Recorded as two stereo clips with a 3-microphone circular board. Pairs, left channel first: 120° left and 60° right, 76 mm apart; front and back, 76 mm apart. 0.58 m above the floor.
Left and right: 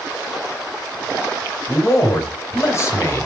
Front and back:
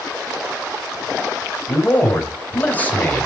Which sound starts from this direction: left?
A man speaking, at 1.7 s.